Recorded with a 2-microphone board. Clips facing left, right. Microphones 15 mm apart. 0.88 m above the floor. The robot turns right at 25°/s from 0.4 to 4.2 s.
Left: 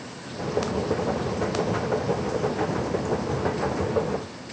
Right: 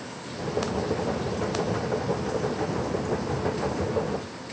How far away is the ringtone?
No ringtone in this recording.